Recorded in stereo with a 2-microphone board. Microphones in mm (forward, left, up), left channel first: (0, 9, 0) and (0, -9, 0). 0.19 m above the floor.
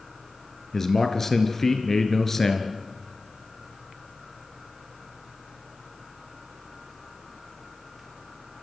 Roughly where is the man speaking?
Left.